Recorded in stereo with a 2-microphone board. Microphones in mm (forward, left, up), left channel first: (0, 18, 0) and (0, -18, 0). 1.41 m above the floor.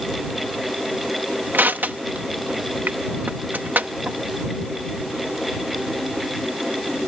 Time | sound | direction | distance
1.5 | crushing | 65° right (ahead or behind) | ?